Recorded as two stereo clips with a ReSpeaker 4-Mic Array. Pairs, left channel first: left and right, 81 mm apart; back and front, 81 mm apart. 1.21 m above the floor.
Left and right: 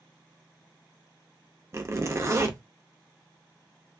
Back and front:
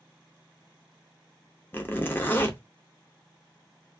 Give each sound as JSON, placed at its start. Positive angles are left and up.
{"t": 1.7, "sound": "a zipper", "azimuth_deg": -125, "distance_m": 0.5}